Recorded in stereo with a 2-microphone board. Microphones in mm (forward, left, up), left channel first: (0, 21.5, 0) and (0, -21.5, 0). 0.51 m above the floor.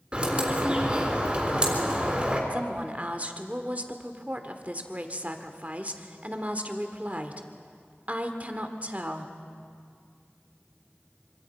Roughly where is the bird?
Right.